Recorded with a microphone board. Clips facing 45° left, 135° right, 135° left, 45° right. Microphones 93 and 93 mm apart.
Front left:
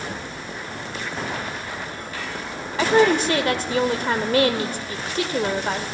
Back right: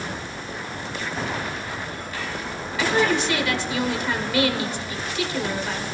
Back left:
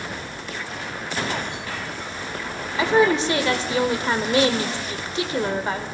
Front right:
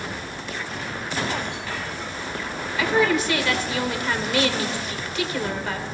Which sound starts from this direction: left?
A woman speaking, at 2.8 s.